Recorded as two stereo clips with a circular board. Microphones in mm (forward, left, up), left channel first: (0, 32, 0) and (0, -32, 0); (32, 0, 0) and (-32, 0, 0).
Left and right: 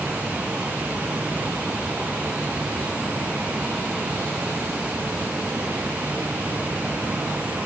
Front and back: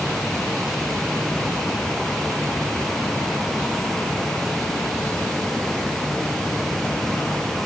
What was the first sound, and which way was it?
Only background noise.